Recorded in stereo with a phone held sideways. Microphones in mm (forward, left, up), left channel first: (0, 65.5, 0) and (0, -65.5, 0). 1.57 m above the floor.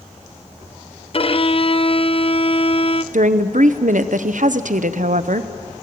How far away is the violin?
About 0.5 m.